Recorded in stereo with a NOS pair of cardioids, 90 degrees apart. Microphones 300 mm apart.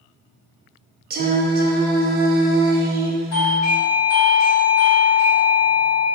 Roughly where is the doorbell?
Ahead left.